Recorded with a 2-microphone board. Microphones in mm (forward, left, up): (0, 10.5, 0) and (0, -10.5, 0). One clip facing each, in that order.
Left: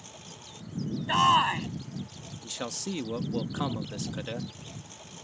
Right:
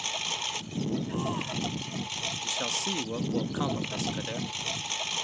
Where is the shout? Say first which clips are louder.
Left 10 dB; 65° left (ahead or behind).